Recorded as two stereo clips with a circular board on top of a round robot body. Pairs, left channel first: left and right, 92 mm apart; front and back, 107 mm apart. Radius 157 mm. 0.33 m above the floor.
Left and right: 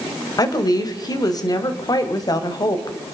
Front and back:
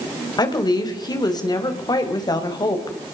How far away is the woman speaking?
About 3 m.